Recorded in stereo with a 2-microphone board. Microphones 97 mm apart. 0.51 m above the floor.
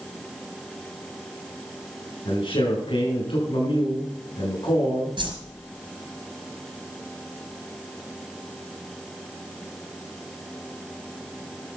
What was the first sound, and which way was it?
A man speaking, 60° left (ahead or behind).